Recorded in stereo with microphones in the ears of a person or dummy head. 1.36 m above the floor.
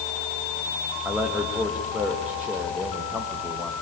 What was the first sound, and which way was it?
A man speaking, centre (ahead or behind).